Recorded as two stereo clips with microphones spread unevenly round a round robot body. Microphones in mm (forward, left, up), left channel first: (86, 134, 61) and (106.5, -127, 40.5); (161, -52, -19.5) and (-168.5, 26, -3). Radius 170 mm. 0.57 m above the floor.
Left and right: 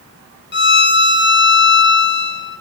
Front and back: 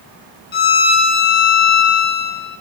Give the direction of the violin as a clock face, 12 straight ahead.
10 o'clock.